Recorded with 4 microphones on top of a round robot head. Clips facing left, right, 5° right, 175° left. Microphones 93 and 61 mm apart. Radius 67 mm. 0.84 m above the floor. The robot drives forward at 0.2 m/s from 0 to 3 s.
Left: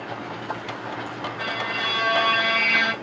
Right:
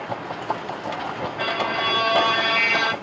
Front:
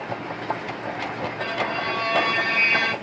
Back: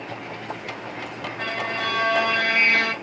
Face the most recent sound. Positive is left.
turn(degrees=-150)